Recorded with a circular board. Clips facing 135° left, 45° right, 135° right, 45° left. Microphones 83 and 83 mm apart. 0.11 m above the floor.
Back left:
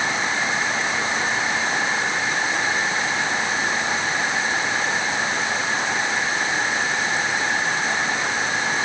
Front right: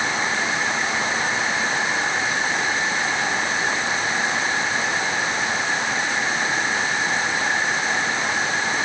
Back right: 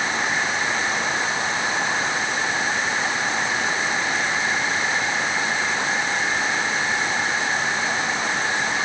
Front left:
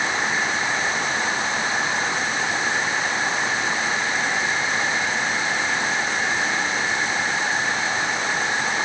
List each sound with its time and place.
Only background noise.